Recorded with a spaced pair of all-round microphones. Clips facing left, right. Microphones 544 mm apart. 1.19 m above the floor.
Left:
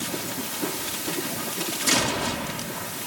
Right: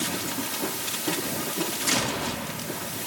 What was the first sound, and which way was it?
Only background noise.